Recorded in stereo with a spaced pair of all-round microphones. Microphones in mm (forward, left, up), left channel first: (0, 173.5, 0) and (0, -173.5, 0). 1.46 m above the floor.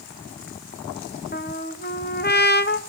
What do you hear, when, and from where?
1.3 s a trumpet: 30° left (ahead or behind), 0.7 m